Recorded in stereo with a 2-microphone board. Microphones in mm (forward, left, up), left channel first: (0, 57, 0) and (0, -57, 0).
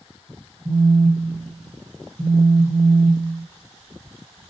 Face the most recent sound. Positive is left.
turn(degrees=-35)  # may be behind; listen again after turning